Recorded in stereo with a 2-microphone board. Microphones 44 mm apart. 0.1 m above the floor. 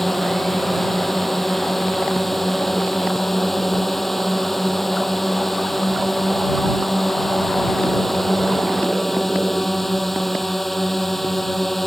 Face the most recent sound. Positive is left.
turn(degrees=5)  # may be behind; listen again after turning